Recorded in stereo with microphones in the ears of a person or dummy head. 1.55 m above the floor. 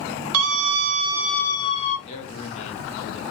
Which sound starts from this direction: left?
A man speaking, at 2.1 s.